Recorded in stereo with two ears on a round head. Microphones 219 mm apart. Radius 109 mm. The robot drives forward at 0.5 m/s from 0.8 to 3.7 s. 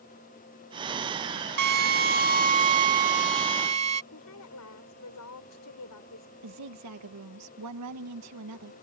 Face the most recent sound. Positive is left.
turn(degrees=-75)  # may be behind; listen again after turning